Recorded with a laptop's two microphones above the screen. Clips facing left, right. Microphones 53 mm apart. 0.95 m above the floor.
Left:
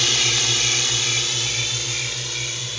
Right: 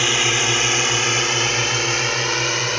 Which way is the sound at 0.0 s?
30° right (ahead or behind).